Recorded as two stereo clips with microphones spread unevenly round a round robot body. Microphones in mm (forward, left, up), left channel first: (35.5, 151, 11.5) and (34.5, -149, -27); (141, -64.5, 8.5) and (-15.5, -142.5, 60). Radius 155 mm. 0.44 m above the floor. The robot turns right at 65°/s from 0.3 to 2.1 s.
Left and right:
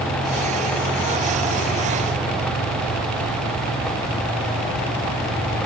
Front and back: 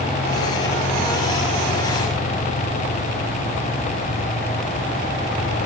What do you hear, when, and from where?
Only background noise.